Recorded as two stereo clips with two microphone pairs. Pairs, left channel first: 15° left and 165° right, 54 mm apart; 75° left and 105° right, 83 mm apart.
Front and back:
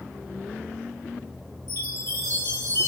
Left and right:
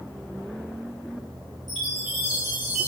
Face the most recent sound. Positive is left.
turn(degrees=-15)